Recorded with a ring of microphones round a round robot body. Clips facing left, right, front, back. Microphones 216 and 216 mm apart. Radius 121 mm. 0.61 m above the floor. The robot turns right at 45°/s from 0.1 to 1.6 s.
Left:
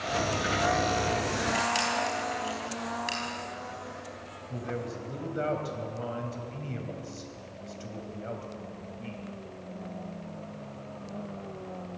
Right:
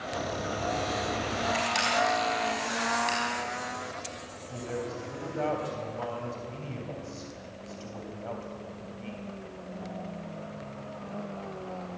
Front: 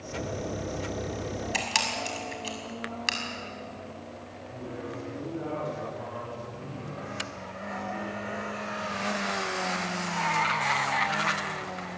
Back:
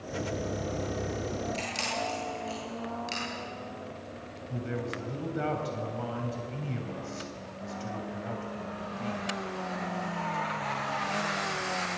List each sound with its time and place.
1.5 s a camera shutter: straight ahead, 5 m; by 3.2 s 5° left, 5 m
4.5 s a man speaking: 160° left, 3 m